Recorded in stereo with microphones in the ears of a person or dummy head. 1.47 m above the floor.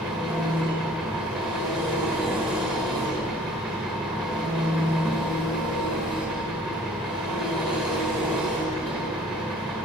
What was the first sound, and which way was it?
An engine running, 5° right (ahead or behind).